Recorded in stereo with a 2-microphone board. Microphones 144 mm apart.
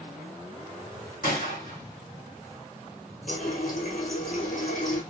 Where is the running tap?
65° left (ahead or behind), 2.0 m.